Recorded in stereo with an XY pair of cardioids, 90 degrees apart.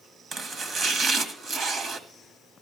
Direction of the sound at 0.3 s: 60° right.